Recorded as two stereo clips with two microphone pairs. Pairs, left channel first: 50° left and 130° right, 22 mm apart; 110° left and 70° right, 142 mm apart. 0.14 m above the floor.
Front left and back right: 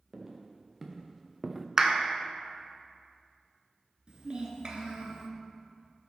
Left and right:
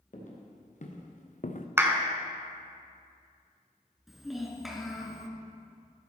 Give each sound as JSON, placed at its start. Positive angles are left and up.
{"t": 0.1, "sound": "footsteps", "azimuth_deg": 145, "distance_m": 3.0}
{"t": 1.8, "sound": "a clap", "azimuth_deg": -125, "distance_m": 0.9}
{"t": 4.1, "sound": "a child speaking", "azimuth_deg": -160, "distance_m": 1.7}